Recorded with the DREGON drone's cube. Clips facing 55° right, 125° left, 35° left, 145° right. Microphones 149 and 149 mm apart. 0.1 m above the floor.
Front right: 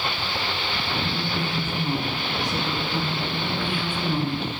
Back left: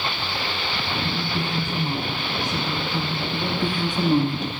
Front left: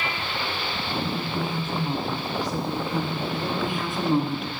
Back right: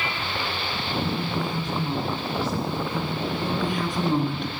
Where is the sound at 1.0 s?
125° left, 1.7 m; by 3.2 s 10° left, 1.8 m.